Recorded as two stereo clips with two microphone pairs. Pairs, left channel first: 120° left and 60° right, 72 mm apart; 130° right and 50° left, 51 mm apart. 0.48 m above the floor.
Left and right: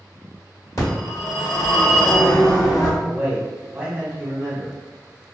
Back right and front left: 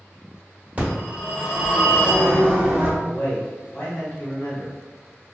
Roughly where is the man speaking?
Right.